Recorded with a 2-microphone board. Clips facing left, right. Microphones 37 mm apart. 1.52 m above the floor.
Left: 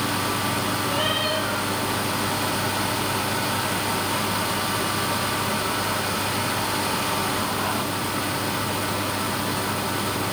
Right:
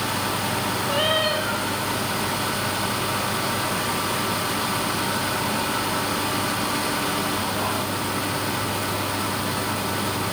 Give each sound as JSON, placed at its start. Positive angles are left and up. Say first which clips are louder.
{"t": 0.9, "sound": "a cat meowing", "louder": "right 4 dB", "side_deg": -30, "distance_m": 6.0}